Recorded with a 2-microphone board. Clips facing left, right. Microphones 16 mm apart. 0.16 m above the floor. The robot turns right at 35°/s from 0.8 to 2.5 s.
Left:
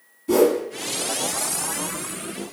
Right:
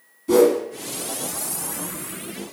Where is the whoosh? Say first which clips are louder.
Right 2 dB; 10° right (ahead or behind), 0.6 m.